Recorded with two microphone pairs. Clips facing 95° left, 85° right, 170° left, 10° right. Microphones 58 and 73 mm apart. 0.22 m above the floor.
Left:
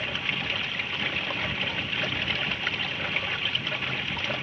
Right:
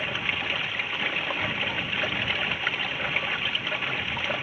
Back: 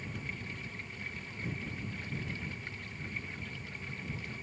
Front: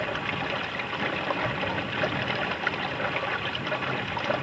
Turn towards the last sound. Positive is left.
turn(degrees=-5)